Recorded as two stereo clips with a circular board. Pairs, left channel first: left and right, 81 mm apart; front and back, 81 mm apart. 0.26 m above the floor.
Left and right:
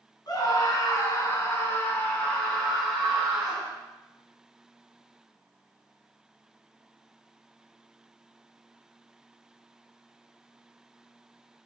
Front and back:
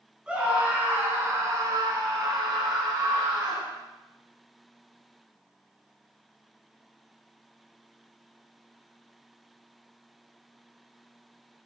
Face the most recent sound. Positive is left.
turn(degrees=-170)